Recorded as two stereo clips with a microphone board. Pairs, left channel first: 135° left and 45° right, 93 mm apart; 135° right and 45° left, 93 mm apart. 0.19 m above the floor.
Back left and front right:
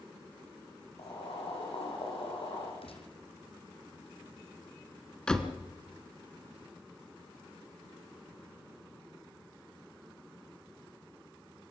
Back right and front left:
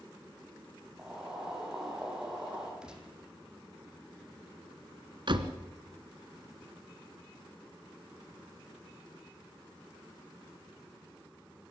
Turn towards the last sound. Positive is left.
turn(degrees=55)